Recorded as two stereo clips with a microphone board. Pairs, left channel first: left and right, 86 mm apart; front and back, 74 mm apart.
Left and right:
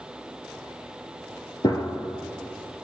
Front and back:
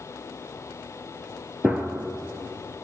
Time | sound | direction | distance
1.6 | a gunshot | 110° left | 1.1 m